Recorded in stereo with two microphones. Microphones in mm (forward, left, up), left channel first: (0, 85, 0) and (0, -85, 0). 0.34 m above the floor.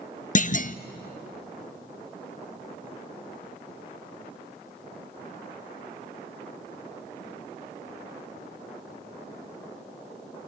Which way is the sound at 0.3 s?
50° left (ahead or behind).